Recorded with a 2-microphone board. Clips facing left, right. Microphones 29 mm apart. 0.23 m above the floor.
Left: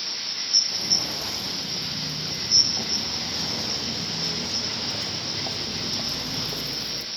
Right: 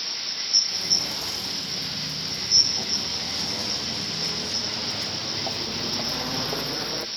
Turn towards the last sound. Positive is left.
turn(degrees=-45)  # may be behind; listen again after turning